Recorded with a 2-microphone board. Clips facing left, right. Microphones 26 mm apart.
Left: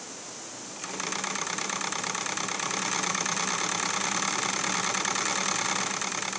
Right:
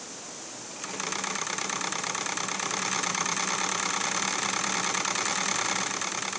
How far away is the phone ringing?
No phone ringing in this recording.